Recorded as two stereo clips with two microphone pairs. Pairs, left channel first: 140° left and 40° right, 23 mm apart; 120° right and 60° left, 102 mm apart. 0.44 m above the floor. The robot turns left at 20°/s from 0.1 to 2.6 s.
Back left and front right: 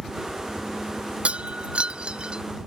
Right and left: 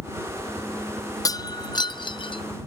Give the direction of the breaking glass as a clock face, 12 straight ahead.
2 o'clock.